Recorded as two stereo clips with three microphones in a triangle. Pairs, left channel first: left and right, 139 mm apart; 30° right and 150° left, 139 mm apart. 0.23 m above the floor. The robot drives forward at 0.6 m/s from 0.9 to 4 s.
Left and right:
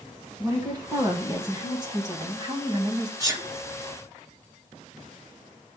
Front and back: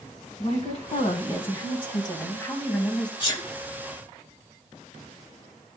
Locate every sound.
0.4 s a woman speaking: 35° right, 1.7 m; by 3.1 s 110° right, 1.4 m
3.2 s a sneeze: 40° right, 1.4 m; by 3.4 s 45° right, 1.4 m